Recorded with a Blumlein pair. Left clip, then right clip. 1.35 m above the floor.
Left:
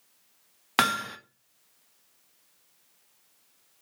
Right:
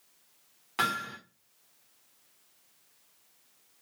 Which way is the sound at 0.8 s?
55° left.